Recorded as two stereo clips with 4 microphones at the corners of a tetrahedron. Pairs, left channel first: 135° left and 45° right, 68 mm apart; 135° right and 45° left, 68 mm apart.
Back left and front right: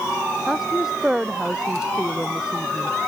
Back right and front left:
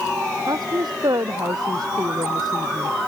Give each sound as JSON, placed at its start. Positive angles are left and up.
{"t": 0.5, "sound": "a woman speaking", "azimuth_deg": 40}